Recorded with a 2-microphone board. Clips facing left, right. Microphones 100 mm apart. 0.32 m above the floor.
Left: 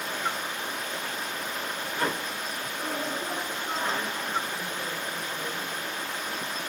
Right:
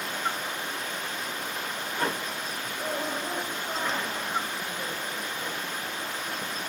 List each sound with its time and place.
0.0 s running water: 85° left, 7.5 m
2.8 s a woman speaking: 70° left (ahead or behind), 3.5 m